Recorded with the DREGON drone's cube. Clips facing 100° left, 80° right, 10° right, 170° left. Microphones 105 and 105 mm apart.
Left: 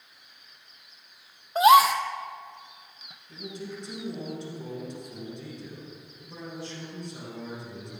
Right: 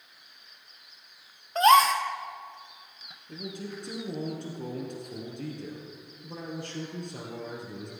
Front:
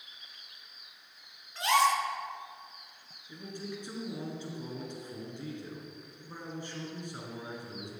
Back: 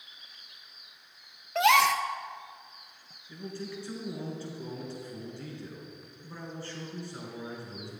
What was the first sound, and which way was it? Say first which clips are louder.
A gasp: left 2 dB, back 3 dB; straight behind.